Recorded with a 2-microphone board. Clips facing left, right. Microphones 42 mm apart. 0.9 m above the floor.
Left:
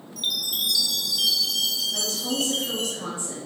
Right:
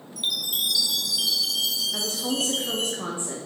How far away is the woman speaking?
About 0.6 m.